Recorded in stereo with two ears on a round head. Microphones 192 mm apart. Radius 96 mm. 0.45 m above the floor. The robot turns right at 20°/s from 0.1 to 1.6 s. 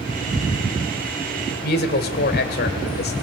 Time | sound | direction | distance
1.6 | a woman speaking | 50° left (ahead or behind) | 2 m